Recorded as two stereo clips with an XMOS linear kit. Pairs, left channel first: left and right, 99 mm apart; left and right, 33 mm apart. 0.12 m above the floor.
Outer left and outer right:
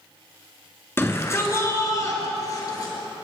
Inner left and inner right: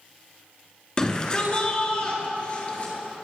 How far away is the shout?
About 1.8 m.